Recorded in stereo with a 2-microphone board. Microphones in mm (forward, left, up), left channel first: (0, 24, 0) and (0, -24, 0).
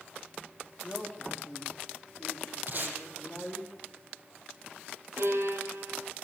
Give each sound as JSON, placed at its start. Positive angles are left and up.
{"t": 0.8, "sound": "a man speaking", "side_deg": 20, "distance_m": 5.5}
{"t": 2.7, "sound": "tape being pulled", "side_deg": -40, "distance_m": 5.0}
{"t": 5.2, "sound": "a violin", "side_deg": -70, "distance_m": 3.0}